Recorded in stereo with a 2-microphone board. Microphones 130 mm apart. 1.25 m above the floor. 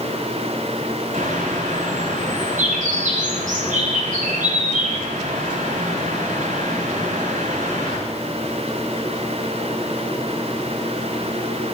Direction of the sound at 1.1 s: 90° right.